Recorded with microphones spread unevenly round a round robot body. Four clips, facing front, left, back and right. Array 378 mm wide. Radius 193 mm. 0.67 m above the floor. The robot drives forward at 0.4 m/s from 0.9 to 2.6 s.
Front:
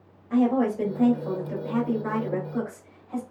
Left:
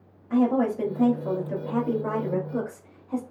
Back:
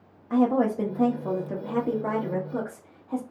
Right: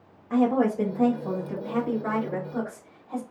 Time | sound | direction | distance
0.3 | a woman speaking | 175° left | 0.8 m